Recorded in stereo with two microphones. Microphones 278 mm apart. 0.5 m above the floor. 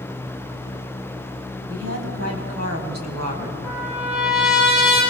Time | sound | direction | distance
1.7 | a woman speaking | 55° right (ahead or behind) | 3 m
3.6 | a trumpet | 5° right (ahead or behind) | 7 m